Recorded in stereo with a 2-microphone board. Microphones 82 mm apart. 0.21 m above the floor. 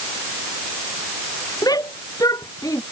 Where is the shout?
50° left (ahead or behind).